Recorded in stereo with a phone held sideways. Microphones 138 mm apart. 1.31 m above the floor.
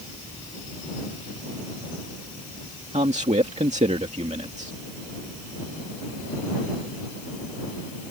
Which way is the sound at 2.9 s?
60° right (ahead or behind).